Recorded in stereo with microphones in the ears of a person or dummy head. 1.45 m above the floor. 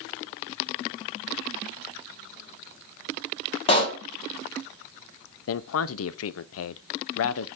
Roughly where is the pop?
Left.